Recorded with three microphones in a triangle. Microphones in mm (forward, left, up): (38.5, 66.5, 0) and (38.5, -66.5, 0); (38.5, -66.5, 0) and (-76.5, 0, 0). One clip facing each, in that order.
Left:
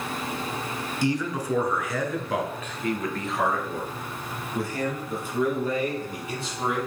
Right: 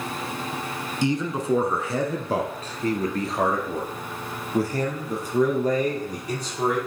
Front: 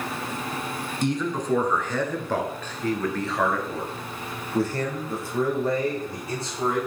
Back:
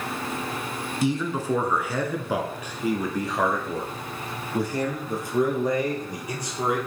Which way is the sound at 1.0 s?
130° right.